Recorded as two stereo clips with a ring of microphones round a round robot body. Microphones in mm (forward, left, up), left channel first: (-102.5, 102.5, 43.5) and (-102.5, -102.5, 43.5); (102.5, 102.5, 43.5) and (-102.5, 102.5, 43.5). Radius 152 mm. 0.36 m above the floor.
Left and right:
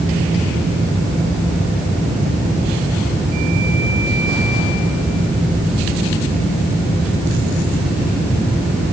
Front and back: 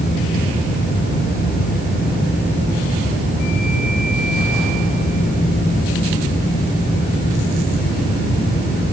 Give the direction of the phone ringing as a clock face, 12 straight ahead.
No phone ringing in this recording.